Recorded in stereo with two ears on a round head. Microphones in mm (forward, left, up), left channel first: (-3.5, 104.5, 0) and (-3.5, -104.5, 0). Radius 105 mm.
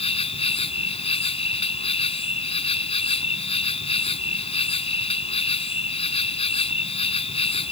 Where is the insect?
25° left (ahead or behind).